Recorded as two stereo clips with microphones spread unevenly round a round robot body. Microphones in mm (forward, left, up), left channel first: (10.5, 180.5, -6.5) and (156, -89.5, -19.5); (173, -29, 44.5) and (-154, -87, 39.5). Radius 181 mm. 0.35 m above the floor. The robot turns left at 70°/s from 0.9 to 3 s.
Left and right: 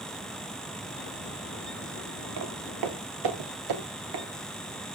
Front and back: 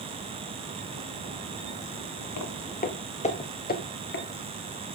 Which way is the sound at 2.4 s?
30° right.